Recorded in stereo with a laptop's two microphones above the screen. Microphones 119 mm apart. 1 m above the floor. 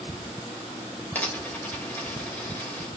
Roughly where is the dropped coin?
Centre.